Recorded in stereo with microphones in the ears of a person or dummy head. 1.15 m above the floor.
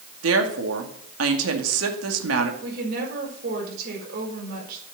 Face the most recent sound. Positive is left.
turn(degrees=-55)  # may be behind; listen again after turning